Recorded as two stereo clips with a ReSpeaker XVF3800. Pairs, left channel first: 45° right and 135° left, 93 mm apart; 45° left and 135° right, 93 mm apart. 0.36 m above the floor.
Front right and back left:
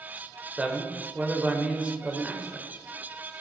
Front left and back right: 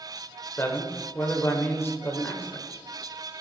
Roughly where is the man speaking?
Left.